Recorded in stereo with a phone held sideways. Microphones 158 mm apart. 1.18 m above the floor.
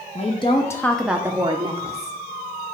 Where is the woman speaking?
45° left (ahead or behind), 0.7 m; by 2.2 s 45° right (ahead or behind), 0.9 m.